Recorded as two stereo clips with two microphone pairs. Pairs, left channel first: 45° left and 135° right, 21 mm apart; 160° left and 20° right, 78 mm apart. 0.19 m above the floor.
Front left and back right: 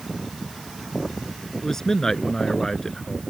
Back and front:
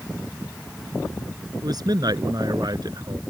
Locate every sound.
1.6 s a man speaking: 10° right